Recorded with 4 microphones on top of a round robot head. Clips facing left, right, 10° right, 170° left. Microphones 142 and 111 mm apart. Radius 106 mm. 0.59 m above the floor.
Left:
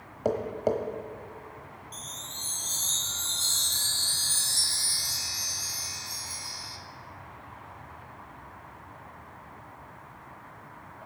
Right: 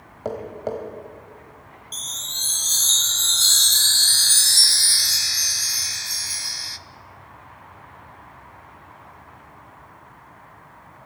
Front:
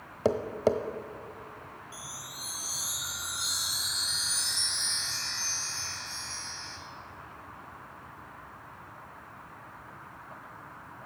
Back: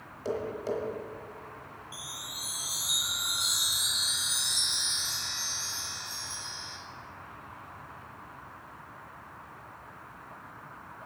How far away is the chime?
About 0.5 m.